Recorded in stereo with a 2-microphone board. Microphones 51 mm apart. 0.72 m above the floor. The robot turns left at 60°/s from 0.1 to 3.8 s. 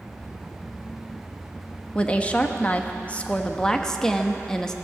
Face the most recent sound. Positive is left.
turn(degrees=10)  # may be behind; listen again after turning